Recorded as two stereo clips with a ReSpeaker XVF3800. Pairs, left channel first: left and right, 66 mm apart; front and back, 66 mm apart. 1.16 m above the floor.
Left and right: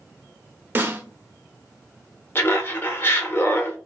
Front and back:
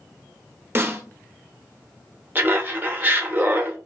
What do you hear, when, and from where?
0.8 s a snare drum: 135° right, 0.6 m
2.4 s laughter: 130° left, 0.8 m